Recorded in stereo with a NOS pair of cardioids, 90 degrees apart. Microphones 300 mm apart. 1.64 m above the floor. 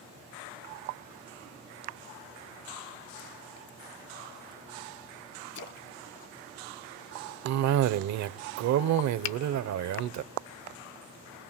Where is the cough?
70° right, 0.7 m.